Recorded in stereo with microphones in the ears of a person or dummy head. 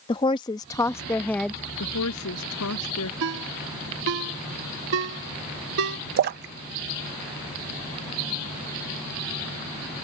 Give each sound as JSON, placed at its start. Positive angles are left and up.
{"t": 0.1, "sound": "a woman speaking", "side_deg": 25}
{"t": 1.8, "sound": "a woman speaking", "side_deg": 85}
{"t": 3.2, "sound": "a ringtone", "side_deg": -65}
{"t": 6.2, "sound": "a splash", "side_deg": -50}